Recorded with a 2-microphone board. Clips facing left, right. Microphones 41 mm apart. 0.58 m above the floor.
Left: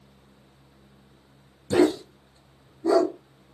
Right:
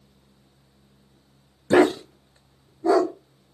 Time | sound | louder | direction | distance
1.7 | a dog barking | right 3 dB | 60° right (ahead or behind) | 0.5 m